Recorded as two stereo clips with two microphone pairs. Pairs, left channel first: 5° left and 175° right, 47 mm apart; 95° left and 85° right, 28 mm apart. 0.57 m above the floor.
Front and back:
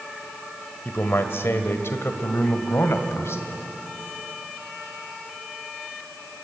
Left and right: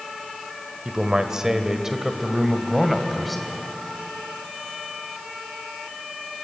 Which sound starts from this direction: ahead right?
A man speaking, at 0.8 s.